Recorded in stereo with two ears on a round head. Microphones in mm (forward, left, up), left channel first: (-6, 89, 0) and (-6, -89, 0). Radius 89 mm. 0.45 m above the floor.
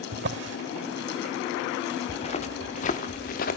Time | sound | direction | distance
0.1 | a drawer | 65° right (ahead or behind) | 1.2 m
2.1 | footsteps | 30° left (ahead or behind) | 2.5 m